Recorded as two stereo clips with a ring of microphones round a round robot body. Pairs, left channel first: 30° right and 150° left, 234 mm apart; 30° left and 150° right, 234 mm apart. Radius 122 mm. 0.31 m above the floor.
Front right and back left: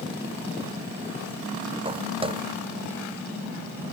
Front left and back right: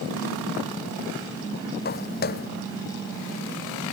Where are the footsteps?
80° left.